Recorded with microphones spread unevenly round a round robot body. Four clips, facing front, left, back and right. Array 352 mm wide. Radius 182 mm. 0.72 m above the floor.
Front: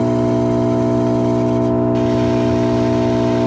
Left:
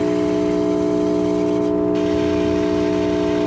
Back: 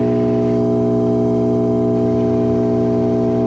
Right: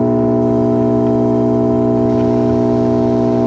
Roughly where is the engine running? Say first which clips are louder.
Right 5 dB, even; ahead right.